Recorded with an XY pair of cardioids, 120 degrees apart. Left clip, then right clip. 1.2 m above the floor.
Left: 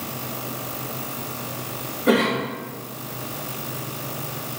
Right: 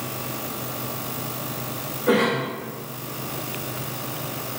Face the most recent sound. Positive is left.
turn(degrees=35)